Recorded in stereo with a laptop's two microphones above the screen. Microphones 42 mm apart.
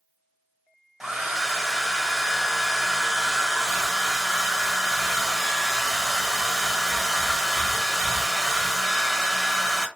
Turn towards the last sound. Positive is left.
turn(degrees=-10)  # may be behind; listen again after turning